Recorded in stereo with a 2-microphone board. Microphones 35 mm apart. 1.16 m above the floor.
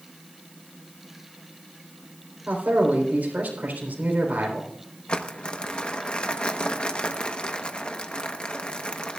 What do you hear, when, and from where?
2.5 s a man speaking: 55° right (ahead or behind), 4 m
5.1 s crumpling: 30° left (ahead or behind), 1.1 m